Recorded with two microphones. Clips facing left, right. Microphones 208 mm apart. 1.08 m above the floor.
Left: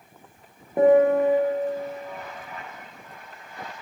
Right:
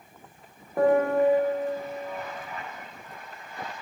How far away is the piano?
About 0.5 m.